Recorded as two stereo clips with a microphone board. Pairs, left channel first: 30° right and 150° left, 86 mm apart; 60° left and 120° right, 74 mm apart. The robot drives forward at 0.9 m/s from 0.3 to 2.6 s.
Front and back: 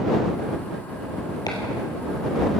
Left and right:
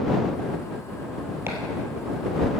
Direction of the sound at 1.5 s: 65° right.